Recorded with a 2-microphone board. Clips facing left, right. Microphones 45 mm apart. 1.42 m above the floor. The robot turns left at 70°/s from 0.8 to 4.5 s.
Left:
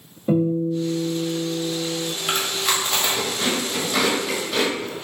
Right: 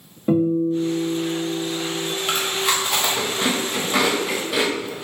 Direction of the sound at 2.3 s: 5° left (ahead or behind).